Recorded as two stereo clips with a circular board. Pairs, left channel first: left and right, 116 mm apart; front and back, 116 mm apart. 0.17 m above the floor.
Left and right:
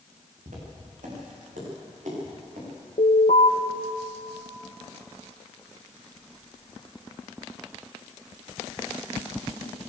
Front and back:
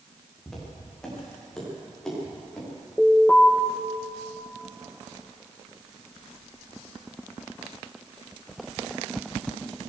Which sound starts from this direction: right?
Footsteps, at 0.5 s.